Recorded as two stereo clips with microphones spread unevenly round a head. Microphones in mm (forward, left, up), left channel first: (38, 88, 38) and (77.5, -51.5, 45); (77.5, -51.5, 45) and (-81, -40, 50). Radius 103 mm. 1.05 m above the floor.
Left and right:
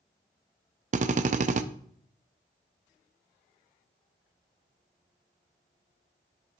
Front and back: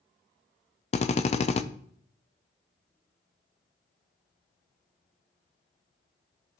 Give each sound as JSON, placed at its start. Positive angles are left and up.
{"t": 0.9, "sound": "a drill", "azimuth_deg": -50, "distance_m": 0.5}